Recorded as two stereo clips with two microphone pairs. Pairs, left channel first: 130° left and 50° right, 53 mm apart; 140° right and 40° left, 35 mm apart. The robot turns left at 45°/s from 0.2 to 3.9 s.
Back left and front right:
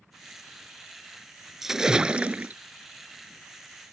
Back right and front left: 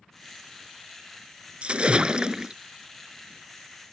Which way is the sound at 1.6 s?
35° left.